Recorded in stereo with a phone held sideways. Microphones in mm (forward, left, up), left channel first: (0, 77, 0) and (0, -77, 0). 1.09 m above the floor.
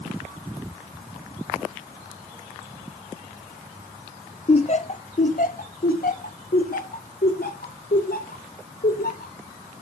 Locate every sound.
4.5 s laughter: 40° left (ahead or behind), 1.1 m; by 9.3 s 80° left, 4.5 m